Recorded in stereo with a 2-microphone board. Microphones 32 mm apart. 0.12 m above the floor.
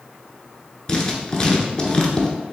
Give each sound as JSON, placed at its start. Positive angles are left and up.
{"t": 0.9, "sound": "writing", "side_deg": 20, "distance_m": 0.6}